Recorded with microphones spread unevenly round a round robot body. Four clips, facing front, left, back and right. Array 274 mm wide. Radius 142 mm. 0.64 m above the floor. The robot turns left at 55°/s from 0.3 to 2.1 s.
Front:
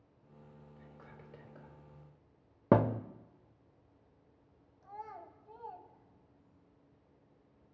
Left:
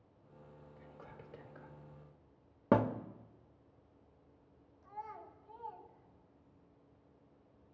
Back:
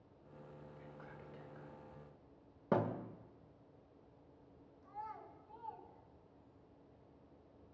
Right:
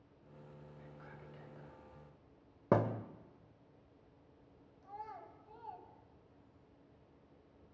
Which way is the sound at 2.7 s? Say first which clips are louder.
Left 2 dB, front 8 dB; 5° right.